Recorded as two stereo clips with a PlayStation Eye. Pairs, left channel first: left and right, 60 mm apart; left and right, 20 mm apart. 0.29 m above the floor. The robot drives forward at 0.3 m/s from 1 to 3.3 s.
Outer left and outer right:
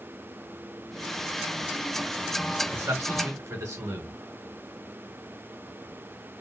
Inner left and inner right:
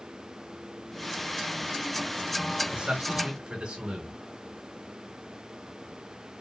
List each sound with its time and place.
2.7 s a man speaking: 70° right (ahead or behind), 3 m